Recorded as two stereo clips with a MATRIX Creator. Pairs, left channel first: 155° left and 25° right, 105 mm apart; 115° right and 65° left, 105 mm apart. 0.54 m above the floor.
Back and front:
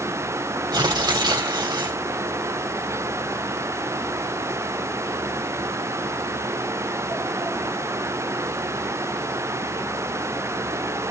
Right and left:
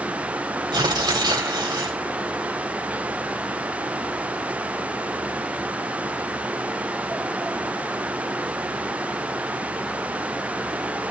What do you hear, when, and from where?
0.7 s tearing paper: 25° left, 3.5 m